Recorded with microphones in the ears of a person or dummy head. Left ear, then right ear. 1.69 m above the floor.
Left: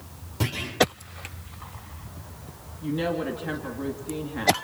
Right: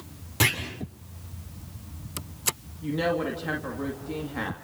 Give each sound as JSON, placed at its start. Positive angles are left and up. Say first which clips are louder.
{"t": 0.4, "sound": "a clunk", "louder": "right 7 dB", "side_deg": -85, "distance_m": 6.5}
{"t": 2.8, "sound": "a woman speaking", "louder": "right 1 dB", "side_deg": -15, "distance_m": 2.0}